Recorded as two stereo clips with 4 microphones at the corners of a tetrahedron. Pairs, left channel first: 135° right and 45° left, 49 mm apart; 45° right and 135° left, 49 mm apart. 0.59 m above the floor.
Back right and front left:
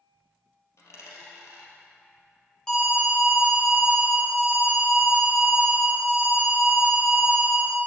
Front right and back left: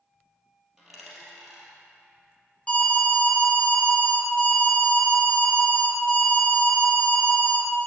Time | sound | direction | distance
0.8 | a dropped coin | 140° right | 2.5 m
2.7 | an alarm | 70° right | 1.9 m